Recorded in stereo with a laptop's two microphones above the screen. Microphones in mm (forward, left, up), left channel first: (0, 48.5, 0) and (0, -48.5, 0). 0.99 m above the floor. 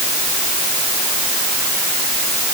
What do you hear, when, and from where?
Only background noise.